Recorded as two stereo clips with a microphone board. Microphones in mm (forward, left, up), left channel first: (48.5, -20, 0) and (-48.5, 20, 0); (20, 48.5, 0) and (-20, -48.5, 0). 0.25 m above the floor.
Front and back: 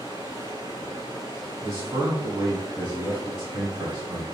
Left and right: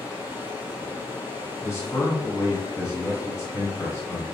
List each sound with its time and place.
0.0 s running water: 30° left, 1.9 m
1.6 s a man speaking: 115° left, 1.3 m